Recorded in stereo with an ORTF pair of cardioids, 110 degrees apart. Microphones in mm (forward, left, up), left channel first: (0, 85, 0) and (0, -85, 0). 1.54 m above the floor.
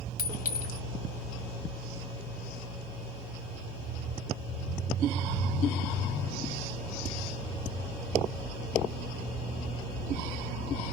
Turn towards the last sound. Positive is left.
turn(degrees=60)